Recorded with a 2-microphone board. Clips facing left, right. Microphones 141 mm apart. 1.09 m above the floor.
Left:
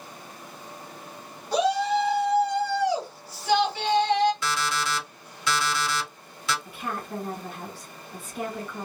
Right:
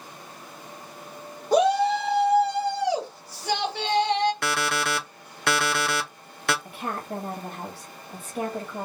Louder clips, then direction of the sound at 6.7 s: Right 1 dB; 55° right (ahead or behind).